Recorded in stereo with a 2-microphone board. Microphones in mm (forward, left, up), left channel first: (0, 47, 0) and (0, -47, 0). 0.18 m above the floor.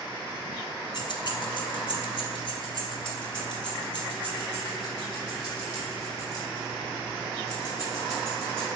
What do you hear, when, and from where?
0.9 s keys jangling: 50° left (ahead or behind), 1.1 m; by 8.7 s 40° left (ahead or behind), 7 m